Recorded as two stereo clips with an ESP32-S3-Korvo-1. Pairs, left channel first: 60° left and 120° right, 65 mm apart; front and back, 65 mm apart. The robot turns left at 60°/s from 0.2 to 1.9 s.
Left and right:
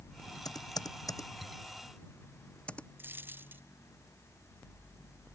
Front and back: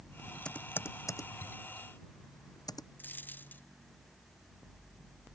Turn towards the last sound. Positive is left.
turn(degrees=-60)